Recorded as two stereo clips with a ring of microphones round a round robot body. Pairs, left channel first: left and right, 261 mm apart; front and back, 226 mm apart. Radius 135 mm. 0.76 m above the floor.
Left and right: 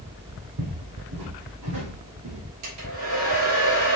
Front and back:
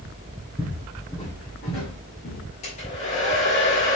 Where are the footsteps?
80° right, 2.5 m; by 2.4 s 60° right, 3 m.